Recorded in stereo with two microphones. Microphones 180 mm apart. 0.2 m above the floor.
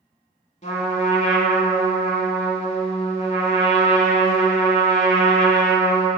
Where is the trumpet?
40° left (ahead or behind), 0.7 m.